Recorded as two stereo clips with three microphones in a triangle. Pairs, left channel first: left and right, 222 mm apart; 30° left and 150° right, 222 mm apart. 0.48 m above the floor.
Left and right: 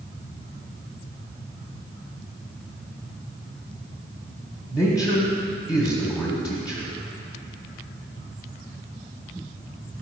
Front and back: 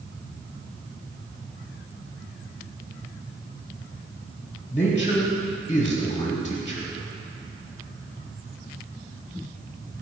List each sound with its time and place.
4.7 s a man speaking: 10° right, 1.2 m